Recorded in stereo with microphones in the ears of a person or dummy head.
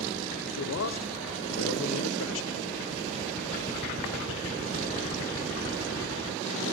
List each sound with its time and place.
0.5 s a man speaking: 70° left (ahead or behind), 1.1 m